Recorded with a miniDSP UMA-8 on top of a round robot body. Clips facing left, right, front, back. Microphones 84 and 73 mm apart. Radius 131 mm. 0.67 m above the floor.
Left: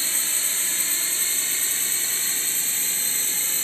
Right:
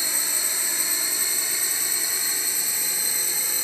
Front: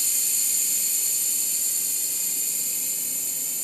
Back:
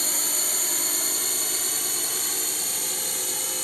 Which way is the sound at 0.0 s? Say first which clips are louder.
Right 1 dB, back 8 dB; 165° right.